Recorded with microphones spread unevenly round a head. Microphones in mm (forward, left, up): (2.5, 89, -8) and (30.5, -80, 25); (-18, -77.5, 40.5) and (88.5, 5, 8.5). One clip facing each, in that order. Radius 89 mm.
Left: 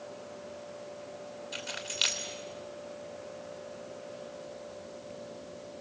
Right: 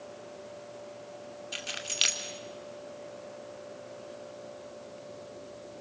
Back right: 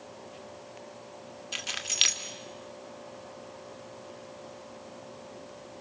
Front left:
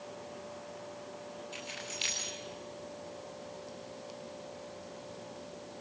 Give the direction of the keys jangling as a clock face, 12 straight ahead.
5 o'clock.